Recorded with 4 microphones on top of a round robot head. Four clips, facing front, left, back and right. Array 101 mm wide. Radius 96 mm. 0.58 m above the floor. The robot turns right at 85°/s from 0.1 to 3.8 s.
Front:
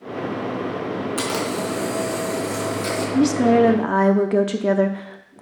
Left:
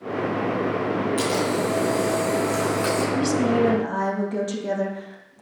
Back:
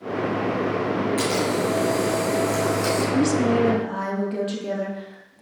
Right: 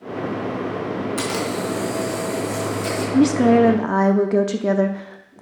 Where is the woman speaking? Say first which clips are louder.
Right 10 dB, front 6 dB; 95° right, 0.9 m; by 5.4 s 40° right, 0.9 m.